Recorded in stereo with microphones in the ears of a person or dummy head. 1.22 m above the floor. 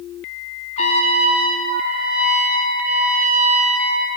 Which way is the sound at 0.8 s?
40° left (ahead or behind).